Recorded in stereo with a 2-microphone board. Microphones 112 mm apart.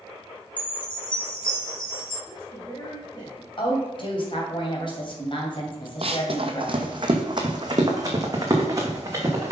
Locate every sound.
0.6 s a chime: 45° left (ahead or behind), 3 m
2.2 s a woman speaking: 40° left (ahead or behind), 2 m
3.6 s a woman speaking: 50° left (ahead or behind), 2.5 m
6.0 s running footsteps: 60° right (ahead or behind), 0.9 m; by 9.5 s 30° right (ahead or behind), 3 m